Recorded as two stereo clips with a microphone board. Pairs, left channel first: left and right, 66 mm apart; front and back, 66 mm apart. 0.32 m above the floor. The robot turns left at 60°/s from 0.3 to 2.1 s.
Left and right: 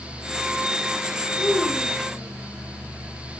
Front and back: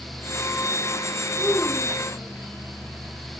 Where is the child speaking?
70° left, 9 m; by 2.4 s 25° left, 9 m.